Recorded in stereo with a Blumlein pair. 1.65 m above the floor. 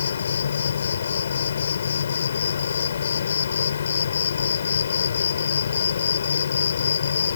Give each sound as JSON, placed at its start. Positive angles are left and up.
{"t": 0.0, "sound": "an insect", "azimuth_deg": 70}